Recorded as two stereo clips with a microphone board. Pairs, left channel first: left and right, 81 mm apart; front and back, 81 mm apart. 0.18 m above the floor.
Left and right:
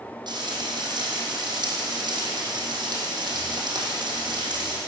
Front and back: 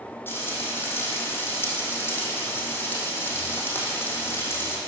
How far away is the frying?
About 4 m.